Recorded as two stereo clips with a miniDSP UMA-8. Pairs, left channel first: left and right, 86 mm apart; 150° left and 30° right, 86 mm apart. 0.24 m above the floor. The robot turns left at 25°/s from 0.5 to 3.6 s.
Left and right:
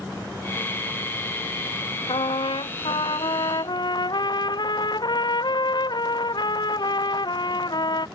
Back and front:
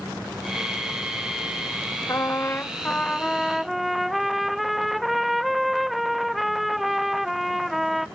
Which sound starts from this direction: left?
A trumpet, at 2.1 s.